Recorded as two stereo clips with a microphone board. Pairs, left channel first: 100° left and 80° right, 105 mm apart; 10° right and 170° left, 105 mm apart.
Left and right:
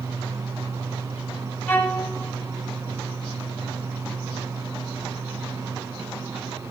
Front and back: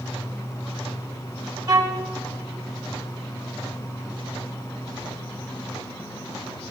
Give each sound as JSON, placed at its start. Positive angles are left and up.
{"t": 1.7, "sound": "a violin", "azimuth_deg": 160, "distance_m": 1.2}